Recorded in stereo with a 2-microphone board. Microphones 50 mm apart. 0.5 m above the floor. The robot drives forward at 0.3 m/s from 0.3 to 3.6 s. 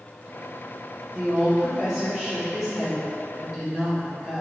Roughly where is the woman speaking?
Centre.